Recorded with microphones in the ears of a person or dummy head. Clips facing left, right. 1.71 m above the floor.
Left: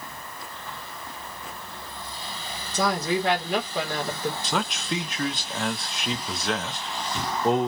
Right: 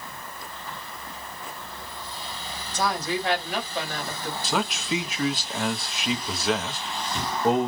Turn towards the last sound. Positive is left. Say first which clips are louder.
# right 1 dB
turn(degrees=0)  # may be behind; listen again after turning